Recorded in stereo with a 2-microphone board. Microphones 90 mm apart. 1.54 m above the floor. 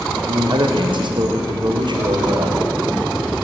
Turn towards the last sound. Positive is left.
turn(degrees=-55)  # may be behind; listen again after turning